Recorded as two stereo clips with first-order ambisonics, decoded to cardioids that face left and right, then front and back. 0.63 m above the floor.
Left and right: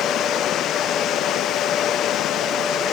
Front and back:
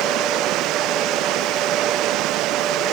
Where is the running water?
140° left.